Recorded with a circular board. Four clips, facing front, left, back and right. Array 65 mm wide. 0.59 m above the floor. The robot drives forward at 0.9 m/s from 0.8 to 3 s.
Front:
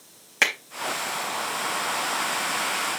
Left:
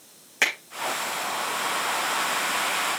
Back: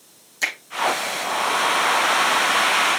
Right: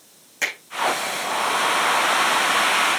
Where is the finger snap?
25° left, 4 m.